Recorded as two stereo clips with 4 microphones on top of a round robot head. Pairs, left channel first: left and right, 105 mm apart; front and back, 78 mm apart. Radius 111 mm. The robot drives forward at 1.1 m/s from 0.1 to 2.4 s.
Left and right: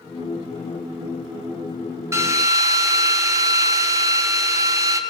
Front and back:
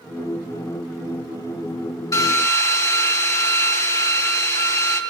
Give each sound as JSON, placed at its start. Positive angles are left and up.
{"t": 2.1, "sound": "a drill", "azimuth_deg": -30, "distance_m": 1.6}